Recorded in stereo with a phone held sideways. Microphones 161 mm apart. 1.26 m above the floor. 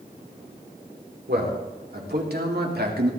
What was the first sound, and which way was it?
A man speaking, 80° right.